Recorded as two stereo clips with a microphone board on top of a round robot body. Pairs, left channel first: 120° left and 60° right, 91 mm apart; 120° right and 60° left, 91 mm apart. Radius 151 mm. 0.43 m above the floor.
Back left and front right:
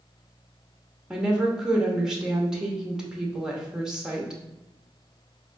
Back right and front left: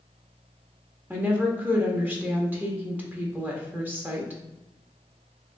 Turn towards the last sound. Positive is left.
turn(degrees=15)